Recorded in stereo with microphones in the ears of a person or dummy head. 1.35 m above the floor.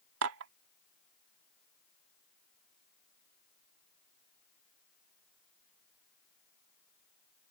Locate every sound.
0.2 s dishes clattering: 75° right (ahead or behind)